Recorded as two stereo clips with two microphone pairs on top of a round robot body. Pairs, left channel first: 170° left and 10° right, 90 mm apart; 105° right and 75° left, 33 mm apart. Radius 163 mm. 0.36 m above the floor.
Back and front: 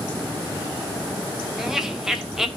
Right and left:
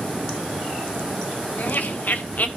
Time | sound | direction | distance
1.6 | laughter | 95° right | 3 m